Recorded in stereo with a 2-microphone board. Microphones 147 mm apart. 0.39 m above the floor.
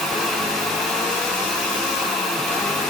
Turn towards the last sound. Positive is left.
No sound to turn to.